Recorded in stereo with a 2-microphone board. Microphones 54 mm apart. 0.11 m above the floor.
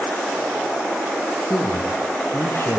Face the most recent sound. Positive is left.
turn(degrees=50)  # may be behind; listen again after turning